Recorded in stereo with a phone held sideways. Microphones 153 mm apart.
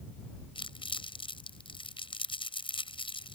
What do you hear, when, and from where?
0.6 s crumpling: 35° left (ahead or behind)